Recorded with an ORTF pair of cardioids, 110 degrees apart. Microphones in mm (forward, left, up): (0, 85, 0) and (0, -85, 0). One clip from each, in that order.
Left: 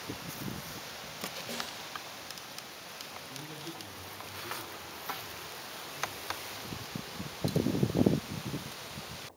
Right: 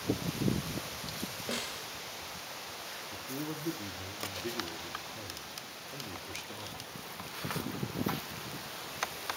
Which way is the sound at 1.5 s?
40° right.